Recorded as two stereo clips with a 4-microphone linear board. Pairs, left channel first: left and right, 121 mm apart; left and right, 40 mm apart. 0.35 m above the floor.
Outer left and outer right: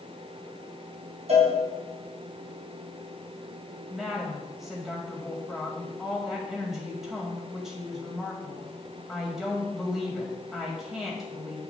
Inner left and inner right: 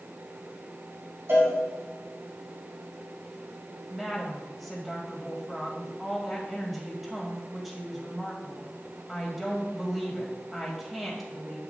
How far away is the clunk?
No clunk in this recording.